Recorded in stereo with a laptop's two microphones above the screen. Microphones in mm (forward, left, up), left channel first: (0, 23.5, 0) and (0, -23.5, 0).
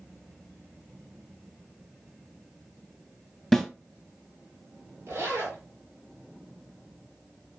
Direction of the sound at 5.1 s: 75° right (ahead or behind).